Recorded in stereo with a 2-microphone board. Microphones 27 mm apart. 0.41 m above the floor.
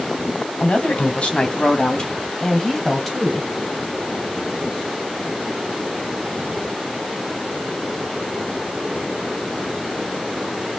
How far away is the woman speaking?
About 3 m.